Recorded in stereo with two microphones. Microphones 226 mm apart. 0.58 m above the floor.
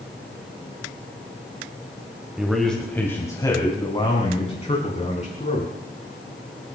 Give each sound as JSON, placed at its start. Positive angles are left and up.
{"t": 2.4, "sound": "a man speaking", "side_deg": -5, "distance_m": 2.5}